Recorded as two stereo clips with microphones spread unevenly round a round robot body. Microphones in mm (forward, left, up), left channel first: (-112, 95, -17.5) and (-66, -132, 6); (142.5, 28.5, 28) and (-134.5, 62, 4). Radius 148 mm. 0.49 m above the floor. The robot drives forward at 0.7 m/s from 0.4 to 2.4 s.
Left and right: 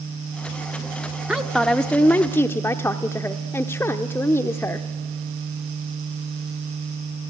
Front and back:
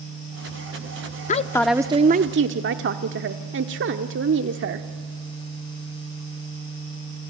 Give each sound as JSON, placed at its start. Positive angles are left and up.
{"t": 1.3, "sound": "a woman speaking", "azimuth_deg": 20, "distance_m": 0.7}